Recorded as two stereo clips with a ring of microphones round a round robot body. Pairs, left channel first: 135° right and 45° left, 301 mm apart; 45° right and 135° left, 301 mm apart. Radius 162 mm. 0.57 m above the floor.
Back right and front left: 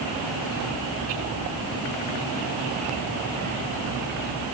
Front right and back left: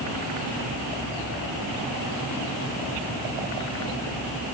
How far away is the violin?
I don't hear a violin.